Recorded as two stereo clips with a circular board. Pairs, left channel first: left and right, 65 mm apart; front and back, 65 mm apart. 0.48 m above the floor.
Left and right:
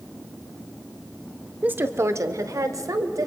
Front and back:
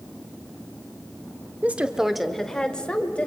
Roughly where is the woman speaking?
Behind right.